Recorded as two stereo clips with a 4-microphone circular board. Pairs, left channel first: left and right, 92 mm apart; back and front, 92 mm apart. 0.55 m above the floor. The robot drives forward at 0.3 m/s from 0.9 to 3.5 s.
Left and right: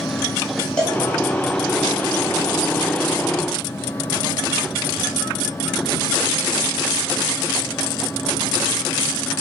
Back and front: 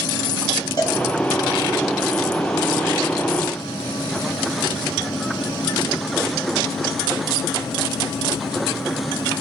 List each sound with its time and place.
0.8 s a cowbell: 165° left, 1.2 m